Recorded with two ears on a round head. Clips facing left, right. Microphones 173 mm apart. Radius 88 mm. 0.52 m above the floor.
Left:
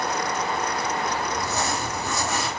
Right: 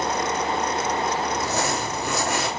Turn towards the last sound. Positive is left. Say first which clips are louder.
# right 2 dB
turn(degrees=-55)  # may be behind; listen again after turning